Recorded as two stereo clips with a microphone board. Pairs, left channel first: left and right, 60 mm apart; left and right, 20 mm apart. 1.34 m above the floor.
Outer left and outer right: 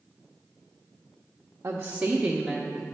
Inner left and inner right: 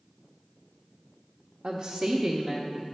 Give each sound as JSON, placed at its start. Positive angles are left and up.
{"t": 1.6, "sound": "a woman speaking", "side_deg": -45, "distance_m": 0.6}